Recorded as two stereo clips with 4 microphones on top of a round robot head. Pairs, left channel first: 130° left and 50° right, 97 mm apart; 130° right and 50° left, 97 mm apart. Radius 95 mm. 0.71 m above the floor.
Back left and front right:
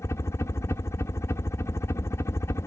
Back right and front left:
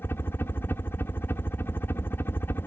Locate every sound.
0.0 s a helicopter: 175° left